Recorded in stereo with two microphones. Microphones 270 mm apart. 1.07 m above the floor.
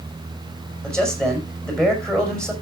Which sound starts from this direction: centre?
A man speaking, at 0.8 s.